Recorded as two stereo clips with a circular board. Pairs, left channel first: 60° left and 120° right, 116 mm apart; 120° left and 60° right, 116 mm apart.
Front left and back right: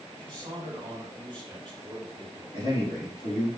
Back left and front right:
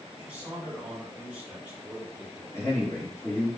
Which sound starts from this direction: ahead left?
A man speaking, at 2.5 s.